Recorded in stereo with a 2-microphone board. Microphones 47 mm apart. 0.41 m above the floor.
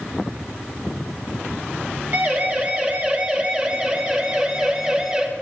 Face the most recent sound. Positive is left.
turn(degrees=-25)  # may be behind; listen again after turning